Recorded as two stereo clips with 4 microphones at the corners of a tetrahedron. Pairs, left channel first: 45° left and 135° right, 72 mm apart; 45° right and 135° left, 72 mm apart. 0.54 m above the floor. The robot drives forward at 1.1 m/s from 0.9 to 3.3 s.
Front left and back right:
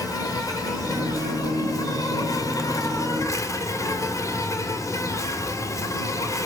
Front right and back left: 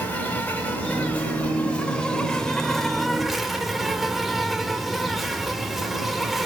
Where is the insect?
20° left, 5 m; by 6.5 s 50° left, 3 m.